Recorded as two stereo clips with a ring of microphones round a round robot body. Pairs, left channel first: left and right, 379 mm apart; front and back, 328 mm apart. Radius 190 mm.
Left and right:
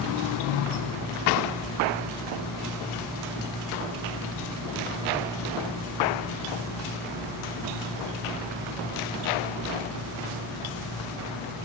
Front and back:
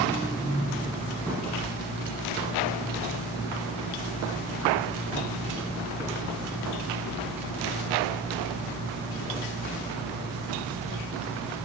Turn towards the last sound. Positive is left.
No sound to turn to.